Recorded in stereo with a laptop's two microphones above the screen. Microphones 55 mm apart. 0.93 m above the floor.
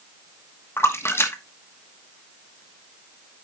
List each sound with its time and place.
0.8 s a splash: 45° left (ahead or behind), 1.1 m